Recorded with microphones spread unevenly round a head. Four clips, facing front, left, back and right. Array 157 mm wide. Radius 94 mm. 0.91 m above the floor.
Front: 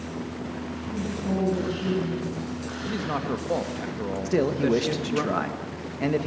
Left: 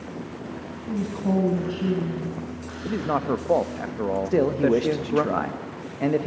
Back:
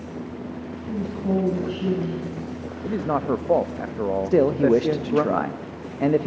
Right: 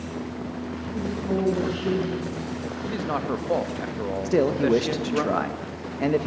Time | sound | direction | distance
0.9 | a woman speaking | 155° left | 6 m
2.9 | a man speaking | 165° left | 0.8 m
4.2 | a man speaking | 175° right | 1.1 m